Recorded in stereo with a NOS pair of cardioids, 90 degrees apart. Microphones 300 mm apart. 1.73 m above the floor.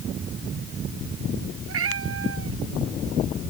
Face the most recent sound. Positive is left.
turn(degrees=-50)